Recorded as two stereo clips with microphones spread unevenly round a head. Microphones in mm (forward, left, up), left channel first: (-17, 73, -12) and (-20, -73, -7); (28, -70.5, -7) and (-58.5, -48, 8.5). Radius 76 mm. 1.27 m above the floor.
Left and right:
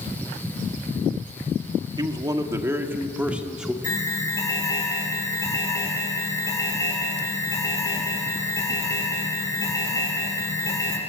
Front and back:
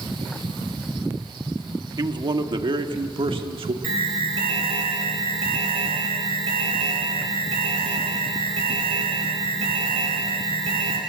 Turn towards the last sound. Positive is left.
turn(degrees=160)